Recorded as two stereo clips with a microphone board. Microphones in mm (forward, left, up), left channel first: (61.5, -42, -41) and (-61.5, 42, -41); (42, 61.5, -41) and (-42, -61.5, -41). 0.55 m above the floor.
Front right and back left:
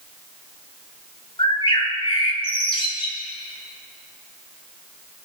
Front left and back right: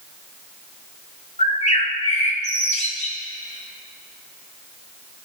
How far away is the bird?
About 1.6 m.